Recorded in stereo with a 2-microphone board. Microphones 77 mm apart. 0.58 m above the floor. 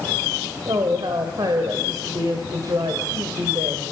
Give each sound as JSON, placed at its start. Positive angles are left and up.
{"t": 0.7, "sound": "a woman speaking", "side_deg": -60, "distance_m": 2.5}